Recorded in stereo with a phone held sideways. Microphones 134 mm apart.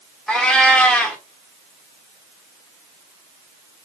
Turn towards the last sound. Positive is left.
turn(degrees=5)  # may be behind; listen again after turning